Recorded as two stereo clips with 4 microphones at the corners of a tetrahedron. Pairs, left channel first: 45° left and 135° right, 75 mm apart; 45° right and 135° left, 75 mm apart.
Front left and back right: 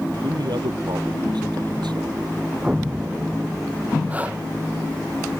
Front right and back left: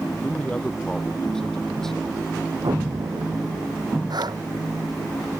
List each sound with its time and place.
0.2 s a man speaking: 120° right; by 2.2 s 130° right
2.6 s an explosion: 150° left
4.1 s breathing: 155° left